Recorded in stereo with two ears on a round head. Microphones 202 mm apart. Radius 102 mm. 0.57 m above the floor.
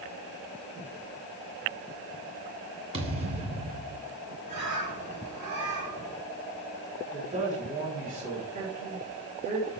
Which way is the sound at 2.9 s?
25° right (ahead or behind).